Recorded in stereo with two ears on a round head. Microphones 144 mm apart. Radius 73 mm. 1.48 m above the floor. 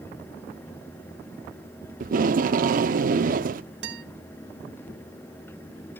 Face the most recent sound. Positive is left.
turn(degrees=-80)